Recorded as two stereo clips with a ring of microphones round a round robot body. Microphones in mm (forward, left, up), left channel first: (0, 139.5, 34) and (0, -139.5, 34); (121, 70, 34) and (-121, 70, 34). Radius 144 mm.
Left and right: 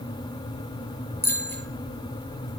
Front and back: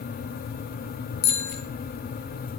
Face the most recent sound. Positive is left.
turn(degrees=5)